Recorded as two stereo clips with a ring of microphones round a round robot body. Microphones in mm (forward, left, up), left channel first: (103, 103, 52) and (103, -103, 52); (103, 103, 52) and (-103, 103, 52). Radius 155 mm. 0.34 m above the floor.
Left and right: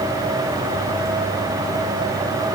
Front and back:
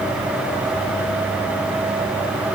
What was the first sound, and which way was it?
Only background noise.